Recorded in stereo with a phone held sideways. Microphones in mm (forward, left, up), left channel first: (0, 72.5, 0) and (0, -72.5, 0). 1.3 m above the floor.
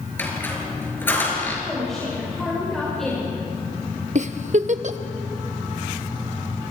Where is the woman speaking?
5° left (ahead or behind), 6 m.